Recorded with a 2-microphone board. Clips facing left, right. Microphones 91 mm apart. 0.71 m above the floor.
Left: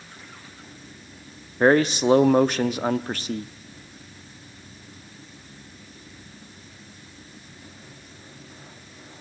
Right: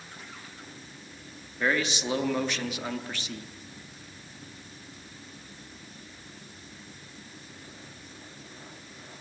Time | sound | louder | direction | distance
1.6 | a man speaking | left 10 dB | 45° left (ahead or behind) | 0.9 m